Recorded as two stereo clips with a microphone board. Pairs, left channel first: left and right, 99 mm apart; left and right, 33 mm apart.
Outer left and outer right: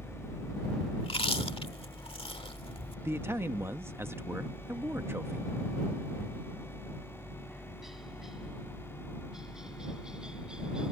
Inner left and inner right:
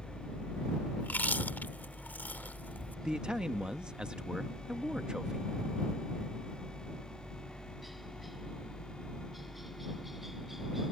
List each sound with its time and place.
0.0 s a helicopter: 30° left (ahead or behind); by 10.9 s 10° right (ahead or behind)
1.0 s chewing: 80° left
3.0 s a man speaking: 25° right (ahead or behind)